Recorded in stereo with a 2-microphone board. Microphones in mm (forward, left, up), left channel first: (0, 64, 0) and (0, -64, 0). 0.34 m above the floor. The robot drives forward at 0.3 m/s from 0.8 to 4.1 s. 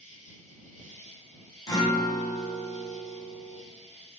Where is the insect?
75° right (ahead or behind), 1.0 m; by 4.2 s 45° right (ahead or behind), 1.2 m.